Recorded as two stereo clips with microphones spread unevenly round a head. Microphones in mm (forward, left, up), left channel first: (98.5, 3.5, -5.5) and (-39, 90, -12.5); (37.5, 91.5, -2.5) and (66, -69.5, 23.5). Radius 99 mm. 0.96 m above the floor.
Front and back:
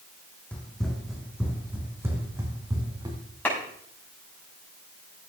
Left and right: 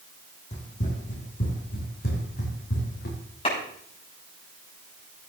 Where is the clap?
50° left, 6.5 m.